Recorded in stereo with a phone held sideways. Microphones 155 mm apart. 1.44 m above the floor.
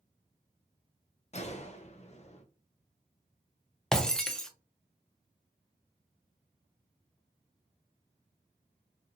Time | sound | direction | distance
1.3 | a gunshot | 40° left (ahead or behind) | 0.6 m
3.9 | breaking glass | 5° left (ahead or behind) | 0.5 m